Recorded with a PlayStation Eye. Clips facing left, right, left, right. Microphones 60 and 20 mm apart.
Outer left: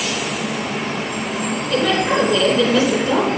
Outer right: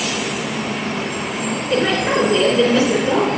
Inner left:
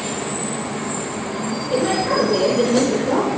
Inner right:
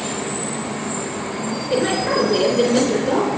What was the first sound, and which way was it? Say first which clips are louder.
A woman speaking: even, even; 30° right (ahead or behind).